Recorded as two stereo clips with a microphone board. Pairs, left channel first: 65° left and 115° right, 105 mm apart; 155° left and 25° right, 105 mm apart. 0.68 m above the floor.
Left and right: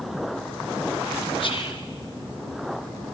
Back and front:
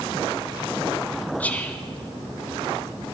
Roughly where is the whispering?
Left.